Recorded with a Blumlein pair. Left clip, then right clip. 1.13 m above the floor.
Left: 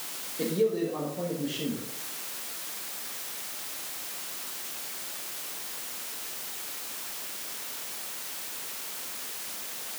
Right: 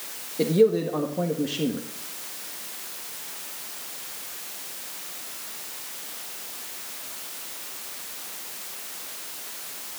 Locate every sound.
0.4 s a man speaking: 25° right, 1.9 m